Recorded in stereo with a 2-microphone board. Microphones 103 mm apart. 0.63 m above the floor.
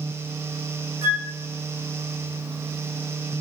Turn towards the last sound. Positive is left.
turn(degrees=-20)  # may be behind; listen again after turning